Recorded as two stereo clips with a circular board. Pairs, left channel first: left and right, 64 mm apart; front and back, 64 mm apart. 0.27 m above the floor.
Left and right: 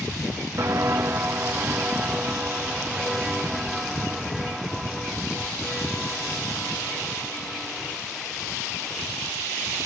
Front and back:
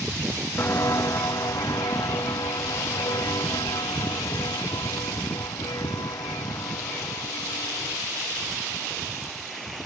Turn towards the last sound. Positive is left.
turn(degrees=5)